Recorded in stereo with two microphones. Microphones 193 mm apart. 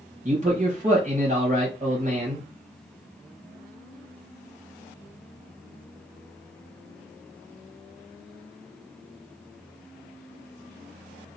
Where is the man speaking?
35° right (ahead or behind), 1.3 m.